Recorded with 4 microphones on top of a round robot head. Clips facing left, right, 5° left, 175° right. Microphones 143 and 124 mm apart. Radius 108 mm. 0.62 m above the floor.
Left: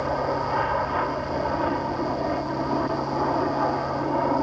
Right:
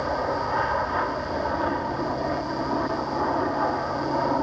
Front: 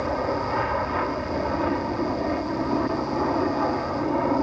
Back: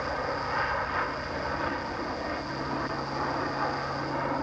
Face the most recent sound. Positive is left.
turn(degrees=10)